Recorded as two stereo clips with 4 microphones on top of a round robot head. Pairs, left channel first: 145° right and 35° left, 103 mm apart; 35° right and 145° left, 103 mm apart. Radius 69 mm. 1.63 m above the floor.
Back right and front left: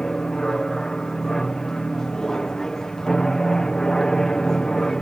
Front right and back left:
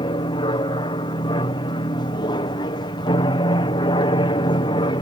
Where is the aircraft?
65° right.